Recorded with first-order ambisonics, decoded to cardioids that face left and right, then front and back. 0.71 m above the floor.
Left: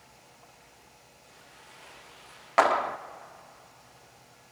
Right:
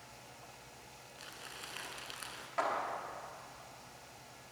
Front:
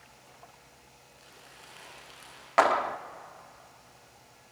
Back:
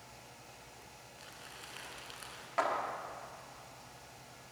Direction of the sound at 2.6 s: 55° left.